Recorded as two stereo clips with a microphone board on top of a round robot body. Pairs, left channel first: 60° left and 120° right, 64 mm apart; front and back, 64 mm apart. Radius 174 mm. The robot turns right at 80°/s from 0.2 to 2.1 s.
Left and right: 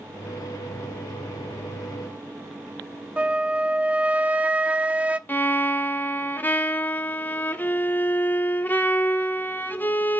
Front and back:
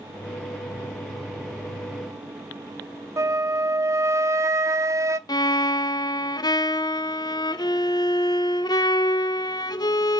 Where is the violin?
5° right, 0.7 m.